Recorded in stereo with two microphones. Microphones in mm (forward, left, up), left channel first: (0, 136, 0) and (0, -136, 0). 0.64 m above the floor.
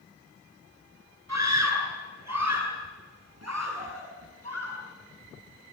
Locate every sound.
1.3 s a scream: 80° right, 9.5 m; by 4.8 s 60° right (ahead or behind), 7 m